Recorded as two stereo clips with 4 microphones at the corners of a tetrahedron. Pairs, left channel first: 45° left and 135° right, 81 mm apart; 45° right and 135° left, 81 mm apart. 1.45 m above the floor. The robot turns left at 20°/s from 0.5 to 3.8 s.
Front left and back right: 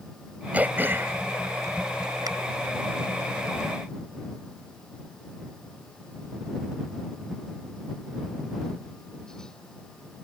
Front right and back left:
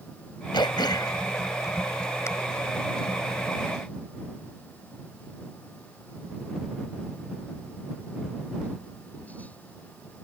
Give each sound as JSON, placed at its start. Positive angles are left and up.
{"t": 0.5, "sound": "throat clearing", "azimuth_deg": -65}